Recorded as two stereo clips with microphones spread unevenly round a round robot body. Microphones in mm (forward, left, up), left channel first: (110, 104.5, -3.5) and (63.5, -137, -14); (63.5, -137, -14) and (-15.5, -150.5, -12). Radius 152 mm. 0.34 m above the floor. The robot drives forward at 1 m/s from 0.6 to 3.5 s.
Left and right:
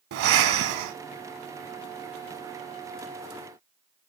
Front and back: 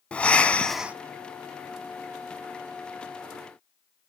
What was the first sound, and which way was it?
Breathing, 70° right.